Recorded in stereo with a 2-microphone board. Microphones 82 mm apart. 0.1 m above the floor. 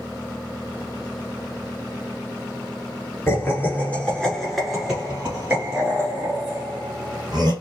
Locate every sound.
3.3 s laughter: 30° left (ahead or behind), 1.5 m; by 7.5 s 50° right (ahead or behind), 2 m